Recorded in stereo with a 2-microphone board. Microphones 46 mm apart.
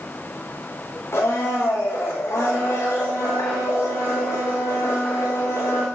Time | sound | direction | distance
1.1 | a blender | 80° left | 5.5 m